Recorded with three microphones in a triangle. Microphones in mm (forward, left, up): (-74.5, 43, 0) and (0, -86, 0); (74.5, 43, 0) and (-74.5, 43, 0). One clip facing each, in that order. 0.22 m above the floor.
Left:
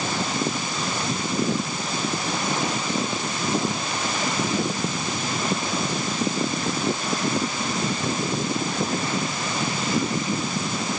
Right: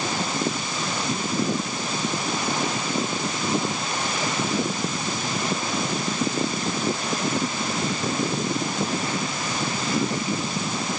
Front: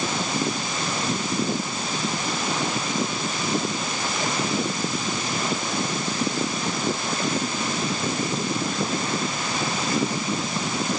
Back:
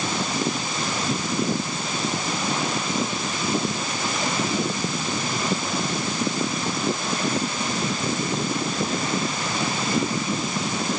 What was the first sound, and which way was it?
Only background noise.